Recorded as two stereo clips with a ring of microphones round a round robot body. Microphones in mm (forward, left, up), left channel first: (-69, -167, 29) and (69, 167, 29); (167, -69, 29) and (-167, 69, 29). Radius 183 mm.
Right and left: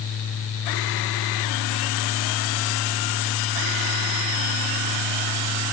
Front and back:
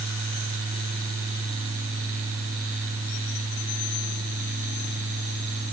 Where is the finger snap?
No finger snap in this recording.